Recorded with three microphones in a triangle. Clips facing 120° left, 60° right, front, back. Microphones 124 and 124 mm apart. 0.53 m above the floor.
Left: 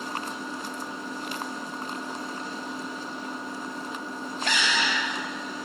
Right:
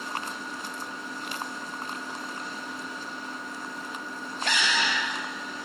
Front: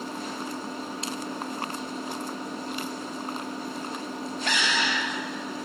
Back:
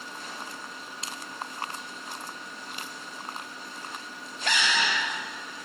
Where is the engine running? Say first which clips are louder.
Left 2 dB, front 7 dB; 50° left.